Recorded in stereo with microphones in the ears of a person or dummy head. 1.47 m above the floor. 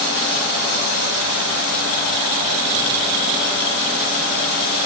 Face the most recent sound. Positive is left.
No sound to turn to.